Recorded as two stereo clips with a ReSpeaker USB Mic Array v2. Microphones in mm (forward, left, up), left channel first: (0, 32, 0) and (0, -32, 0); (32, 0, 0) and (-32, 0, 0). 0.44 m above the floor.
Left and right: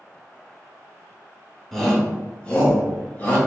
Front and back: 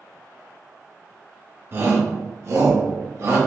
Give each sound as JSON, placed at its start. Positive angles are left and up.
{"t": 1.7, "sound": "a shout", "azimuth_deg": 175, "distance_m": 1.0}